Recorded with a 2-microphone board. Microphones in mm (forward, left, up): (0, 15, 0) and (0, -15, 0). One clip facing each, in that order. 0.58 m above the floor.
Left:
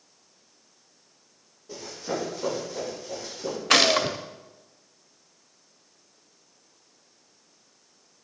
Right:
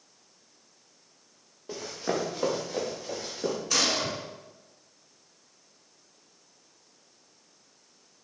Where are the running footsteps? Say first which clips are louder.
Right 1 dB; 55° right (ahead or behind), 3.5 m; by 3.5 s 60° right (ahead or behind), 6 m.